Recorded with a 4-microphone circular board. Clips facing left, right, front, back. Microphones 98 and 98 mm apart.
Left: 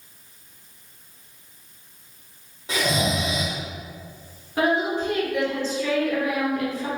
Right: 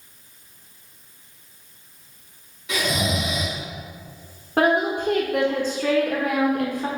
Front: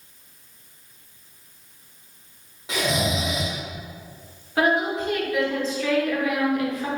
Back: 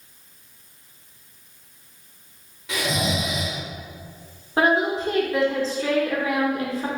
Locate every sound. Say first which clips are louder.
2.7 s snoring: left 1 dB, front 1 dB; 55° left, 1.3 m
4.6 s a woman speaking: right 2 dB, back 1 dB; 120° right, 1.0 m